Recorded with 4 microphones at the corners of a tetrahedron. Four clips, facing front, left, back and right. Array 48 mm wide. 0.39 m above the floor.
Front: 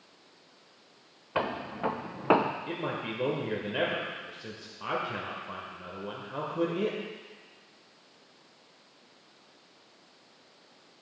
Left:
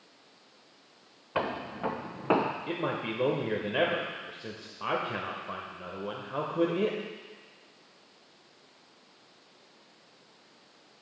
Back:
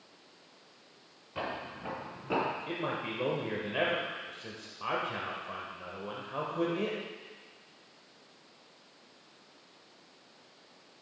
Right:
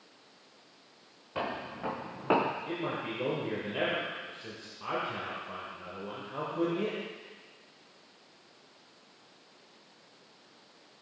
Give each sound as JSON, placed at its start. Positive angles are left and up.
{"t": 1.4, "sound": "footsteps", "azimuth_deg": 35, "distance_m": 2.0}
{"t": 2.7, "sound": "a man speaking", "azimuth_deg": 110, "distance_m": 1.1}